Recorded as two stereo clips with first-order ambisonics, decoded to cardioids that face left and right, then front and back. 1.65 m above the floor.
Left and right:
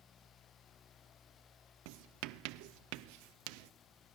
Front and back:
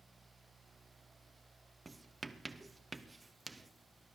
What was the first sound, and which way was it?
Writing, 100° right.